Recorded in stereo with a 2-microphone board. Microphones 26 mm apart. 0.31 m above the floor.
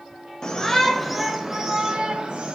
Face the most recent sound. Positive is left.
turn(degrees=-45)  # may be behind; listen again after turning